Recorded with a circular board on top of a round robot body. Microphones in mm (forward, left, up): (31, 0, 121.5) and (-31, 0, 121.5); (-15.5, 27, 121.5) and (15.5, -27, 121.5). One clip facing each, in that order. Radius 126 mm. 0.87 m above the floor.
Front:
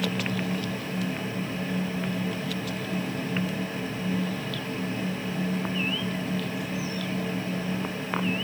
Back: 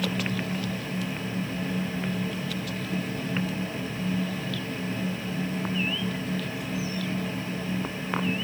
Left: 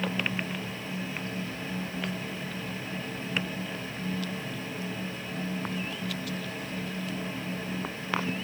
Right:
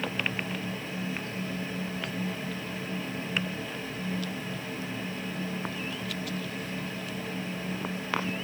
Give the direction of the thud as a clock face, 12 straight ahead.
I don't hear a thud.